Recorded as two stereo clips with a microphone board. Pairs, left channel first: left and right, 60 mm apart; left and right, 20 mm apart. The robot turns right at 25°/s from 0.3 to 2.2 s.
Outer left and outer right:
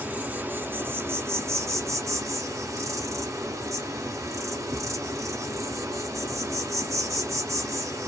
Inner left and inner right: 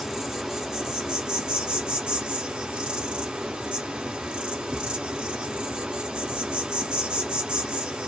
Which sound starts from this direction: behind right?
An insect, at 0.0 s.